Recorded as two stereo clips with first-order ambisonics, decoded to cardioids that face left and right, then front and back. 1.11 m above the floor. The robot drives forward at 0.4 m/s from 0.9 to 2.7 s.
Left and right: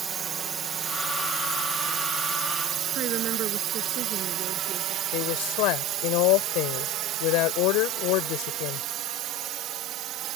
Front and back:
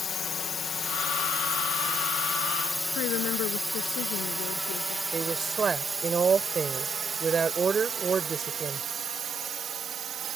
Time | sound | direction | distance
0.0 | a drone | 40° right | ?
3.0 | a woman speaking | 40° right | ?
5.1 | a woman speaking | 110° left | ?